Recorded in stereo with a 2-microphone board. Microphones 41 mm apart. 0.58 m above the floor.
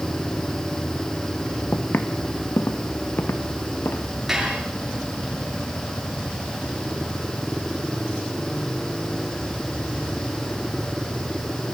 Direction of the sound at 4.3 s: 10° right (ahead or behind).